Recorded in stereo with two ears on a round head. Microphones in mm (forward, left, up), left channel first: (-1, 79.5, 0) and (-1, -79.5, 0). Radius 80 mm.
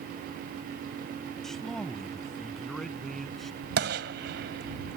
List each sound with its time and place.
1.4 s a man speaking: centre (ahead or behind)
3.8 s a gunshot: 65° right (ahead or behind)